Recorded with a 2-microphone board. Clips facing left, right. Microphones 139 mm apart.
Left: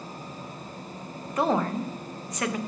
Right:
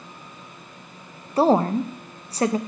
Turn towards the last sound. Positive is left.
turn(degrees=-35)  # may be behind; listen again after turning